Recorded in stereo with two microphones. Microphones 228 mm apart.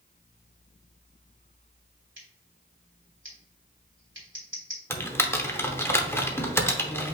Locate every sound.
2.2 s scissors: 60° right (ahead or behind), 2.5 m
4.9 s typing on a keyboard: 10° left (ahead or behind), 0.9 m